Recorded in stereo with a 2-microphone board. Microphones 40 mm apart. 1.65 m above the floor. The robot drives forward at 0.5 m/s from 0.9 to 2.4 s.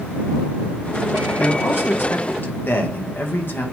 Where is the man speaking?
80° left, 1.7 m; by 3.6 s 65° left (ahead or behind), 1.9 m.